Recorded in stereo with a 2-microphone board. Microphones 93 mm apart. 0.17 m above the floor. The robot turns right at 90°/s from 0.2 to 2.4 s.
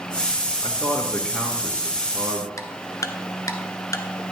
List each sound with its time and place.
0.6 s a man speaking: 55° left (ahead or behind), 2.5 m; by 2.5 s 60° right (ahead or behind), 2.5 m
2.6 s ticking: 35° left (ahead or behind), 1.1 m